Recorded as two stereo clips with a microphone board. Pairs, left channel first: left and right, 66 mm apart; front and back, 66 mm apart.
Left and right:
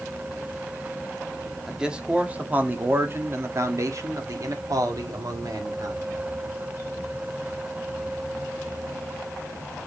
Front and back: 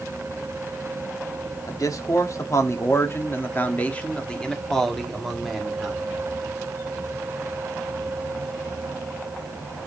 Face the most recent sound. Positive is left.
turn(degrees=-95)